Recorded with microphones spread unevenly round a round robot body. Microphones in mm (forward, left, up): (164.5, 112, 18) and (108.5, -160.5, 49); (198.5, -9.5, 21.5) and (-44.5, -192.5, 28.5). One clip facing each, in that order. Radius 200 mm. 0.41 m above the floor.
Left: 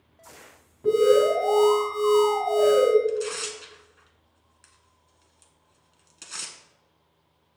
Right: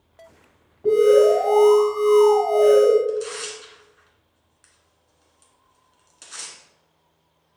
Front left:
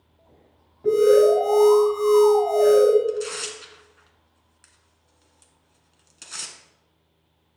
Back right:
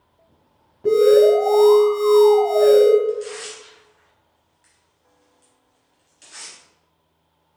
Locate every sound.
0.8 s an alarm: 150° left, 3 m
3.1 s tearing paper: 25° left, 1.4 m